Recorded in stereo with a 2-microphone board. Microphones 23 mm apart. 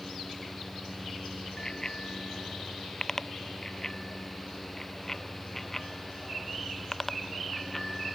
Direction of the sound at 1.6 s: 35° left (ahead or behind).